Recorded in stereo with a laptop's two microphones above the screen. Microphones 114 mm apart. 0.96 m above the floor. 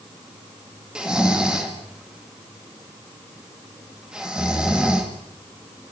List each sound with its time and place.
0.9 s snoring: 5° right (ahead or behind), 1.9 m